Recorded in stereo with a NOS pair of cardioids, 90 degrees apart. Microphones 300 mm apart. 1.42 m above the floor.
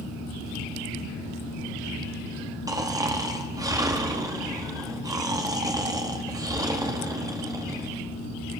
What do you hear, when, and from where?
2.7 s snoring: 10° right, 2.5 m